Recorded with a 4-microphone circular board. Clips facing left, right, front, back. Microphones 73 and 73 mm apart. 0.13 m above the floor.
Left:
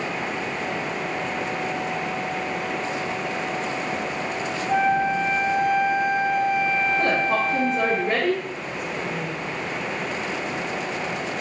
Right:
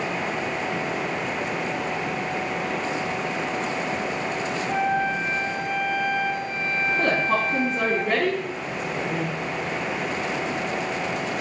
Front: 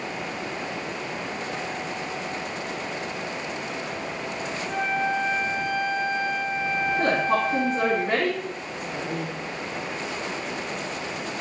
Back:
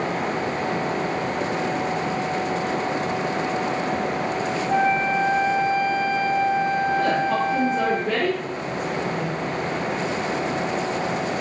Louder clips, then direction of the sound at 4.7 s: Left 4 dB, back 5 dB; 40° right.